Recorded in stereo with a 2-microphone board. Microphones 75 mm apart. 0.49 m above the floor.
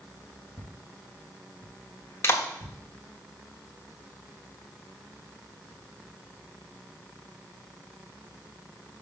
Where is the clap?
35° left (ahead or behind), 1.2 m.